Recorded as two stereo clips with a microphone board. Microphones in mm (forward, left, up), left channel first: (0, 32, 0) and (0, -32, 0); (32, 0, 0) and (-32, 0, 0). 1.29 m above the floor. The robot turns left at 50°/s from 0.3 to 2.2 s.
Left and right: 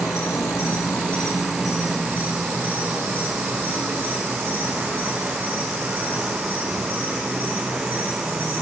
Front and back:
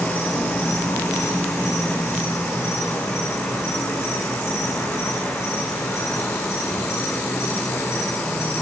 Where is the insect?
60° left, 8.5 m; by 8.6 s 35° right, 8.5 m.